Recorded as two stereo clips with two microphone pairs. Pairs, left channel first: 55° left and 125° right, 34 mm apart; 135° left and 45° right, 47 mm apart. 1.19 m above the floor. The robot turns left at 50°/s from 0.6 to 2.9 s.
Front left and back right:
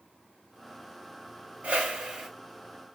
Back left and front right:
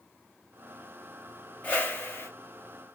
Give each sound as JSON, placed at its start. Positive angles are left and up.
{"t": 1.6, "sound": "a whoosh", "azimuth_deg": -175, "distance_m": 2.5}